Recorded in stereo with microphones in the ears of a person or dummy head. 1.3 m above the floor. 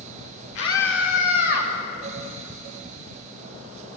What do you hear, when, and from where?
0.6 s a scream: 75° left (ahead or behind), 5 m; by 1.7 s 60° left (ahead or behind), 6 m